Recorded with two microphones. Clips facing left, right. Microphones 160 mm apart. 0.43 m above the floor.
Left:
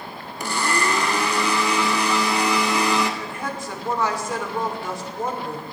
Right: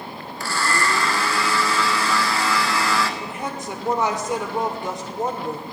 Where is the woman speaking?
20° right (ahead or behind), 1.0 m.